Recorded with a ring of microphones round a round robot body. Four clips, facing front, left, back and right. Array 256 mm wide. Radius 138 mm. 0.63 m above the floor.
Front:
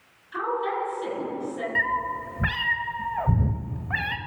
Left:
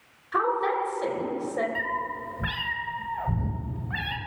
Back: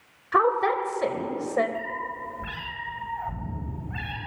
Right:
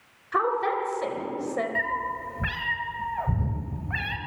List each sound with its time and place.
0.3 s a woman speaking: 175° right, 3.5 m
1.8 s a cat meowing: 10° right, 1.5 m